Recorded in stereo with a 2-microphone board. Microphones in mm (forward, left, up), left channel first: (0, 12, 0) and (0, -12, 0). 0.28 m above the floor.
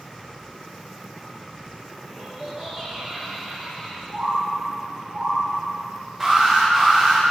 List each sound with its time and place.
2.0 s laughter: 30° right (ahead or behind), 1.7 m; by 4.0 s 10° right (ahead or behind), 4 m
4.1 s a bird: 30° right (ahead or behind), 2.5 m
6.2 s an alarm: 15° right (ahead or behind), 2.5 m